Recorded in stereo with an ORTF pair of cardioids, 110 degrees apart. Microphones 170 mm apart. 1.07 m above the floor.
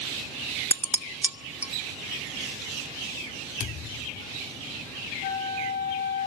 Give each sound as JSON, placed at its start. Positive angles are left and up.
{"t": 0.7, "sound": "dishes clattering", "azimuth_deg": -10, "distance_m": 1.0}
{"t": 3.6, "sound": "a thud", "azimuth_deg": 50, "distance_m": 1.5}
{"t": 5.2, "sound": "a flute", "azimuth_deg": 55, "distance_m": 4.0}